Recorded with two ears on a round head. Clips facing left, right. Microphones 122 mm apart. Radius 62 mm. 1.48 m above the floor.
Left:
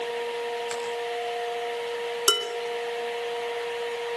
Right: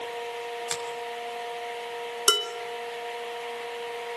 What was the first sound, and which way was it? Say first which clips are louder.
A finger snap: left 3 dB; 40° right (ahead or behind).